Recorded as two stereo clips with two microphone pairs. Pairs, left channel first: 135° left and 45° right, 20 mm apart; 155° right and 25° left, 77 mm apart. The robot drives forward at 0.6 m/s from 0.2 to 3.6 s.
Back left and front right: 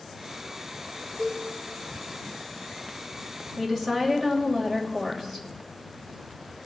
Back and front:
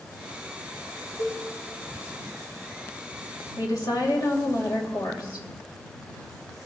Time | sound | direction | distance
1.2 | a cowbell | 155° right | 2 m
3.6 | a woman speaking | 150° right | 2.5 m